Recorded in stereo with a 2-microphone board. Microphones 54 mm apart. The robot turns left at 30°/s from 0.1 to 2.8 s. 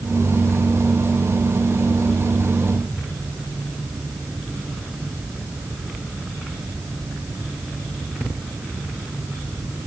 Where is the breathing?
I don't hear breathing.